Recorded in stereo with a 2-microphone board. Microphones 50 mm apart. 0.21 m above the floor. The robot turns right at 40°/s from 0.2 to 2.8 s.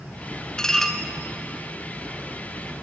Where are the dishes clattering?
15° left (ahead or behind), 1.4 m; by 1.0 s centre (ahead or behind), 1.4 m.